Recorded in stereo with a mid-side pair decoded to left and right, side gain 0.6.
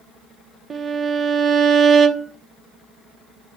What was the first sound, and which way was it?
A violin, 30° right.